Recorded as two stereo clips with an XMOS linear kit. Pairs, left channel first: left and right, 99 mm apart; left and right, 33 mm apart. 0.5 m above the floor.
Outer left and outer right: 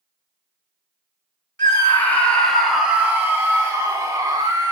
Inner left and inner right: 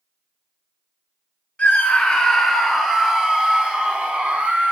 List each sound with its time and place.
1.6 s a scream: 30° left (ahead or behind), 1.1 m; by 4.7 s 45° right (ahead or behind), 1.9 m